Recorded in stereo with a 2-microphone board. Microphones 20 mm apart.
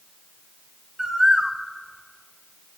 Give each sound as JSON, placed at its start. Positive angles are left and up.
{"t": 1.0, "sound": "a bird", "side_deg": -40, "distance_m": 0.5}